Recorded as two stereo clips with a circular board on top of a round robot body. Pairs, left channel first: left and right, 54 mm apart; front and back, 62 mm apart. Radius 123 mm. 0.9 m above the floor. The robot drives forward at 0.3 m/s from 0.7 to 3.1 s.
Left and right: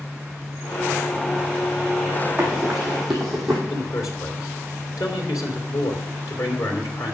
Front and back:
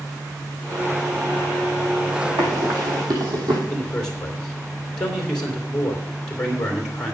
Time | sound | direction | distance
2.4 | running footsteps | 175° right | 2.5 m
3.7 | a man speaking | 85° left | 2.5 m